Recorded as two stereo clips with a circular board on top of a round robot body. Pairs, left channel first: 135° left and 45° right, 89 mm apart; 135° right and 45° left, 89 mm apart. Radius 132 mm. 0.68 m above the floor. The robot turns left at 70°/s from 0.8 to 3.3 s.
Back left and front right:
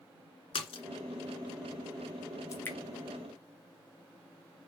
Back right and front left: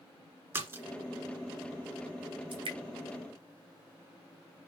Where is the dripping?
75° left, 2 m; by 2.8 s 60° left, 2 m.